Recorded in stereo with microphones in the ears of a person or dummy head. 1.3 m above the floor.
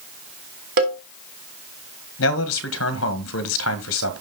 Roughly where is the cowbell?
Right.